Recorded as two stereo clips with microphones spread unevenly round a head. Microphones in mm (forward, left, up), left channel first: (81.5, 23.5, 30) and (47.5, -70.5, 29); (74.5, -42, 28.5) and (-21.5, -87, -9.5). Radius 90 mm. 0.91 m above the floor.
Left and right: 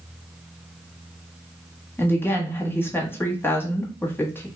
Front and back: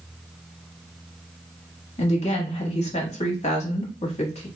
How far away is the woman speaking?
About 1.2 m.